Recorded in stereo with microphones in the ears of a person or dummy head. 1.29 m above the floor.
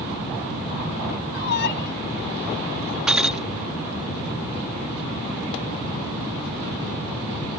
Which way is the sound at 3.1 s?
5° right (ahead or behind).